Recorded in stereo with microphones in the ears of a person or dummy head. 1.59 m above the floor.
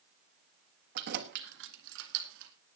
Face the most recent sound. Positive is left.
turn(degrees=-70)  # may be behind; listen again after turning